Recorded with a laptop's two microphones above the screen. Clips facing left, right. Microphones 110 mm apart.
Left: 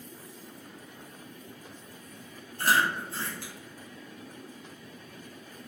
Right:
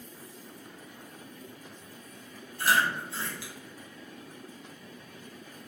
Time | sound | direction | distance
2.6 | chewing | 50° left (ahead or behind) | 1.5 m